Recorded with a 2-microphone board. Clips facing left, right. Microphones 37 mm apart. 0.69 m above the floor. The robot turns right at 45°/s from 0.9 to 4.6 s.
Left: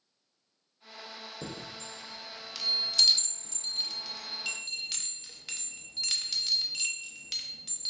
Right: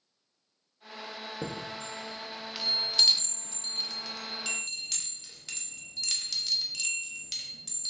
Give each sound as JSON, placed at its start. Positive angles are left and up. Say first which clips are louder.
{"t": 1.4, "sound": "a chime", "louder": "right 5 dB", "side_deg": -20, "distance_m": 0.7}